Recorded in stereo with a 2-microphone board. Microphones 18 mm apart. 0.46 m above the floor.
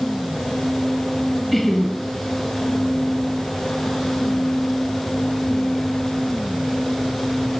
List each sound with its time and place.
1.5 s laughter: 5° left (ahead or behind), 5 m